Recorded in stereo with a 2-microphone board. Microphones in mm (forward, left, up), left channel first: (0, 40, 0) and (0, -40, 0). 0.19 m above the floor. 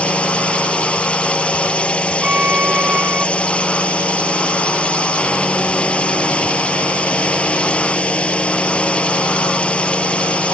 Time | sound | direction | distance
0.0 | a drone | 15° left (ahead or behind) | ?
2.2 | a violin | 15° right (ahead or behind) | ?